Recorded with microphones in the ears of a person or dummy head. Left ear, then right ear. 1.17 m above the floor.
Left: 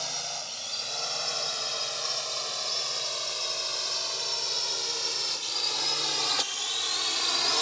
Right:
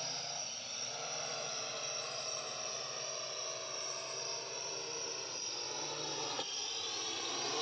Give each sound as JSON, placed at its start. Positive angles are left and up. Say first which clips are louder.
{"t": 0.0, "sound": "a drone", "louder": "left 7 dB", "side_deg": 80}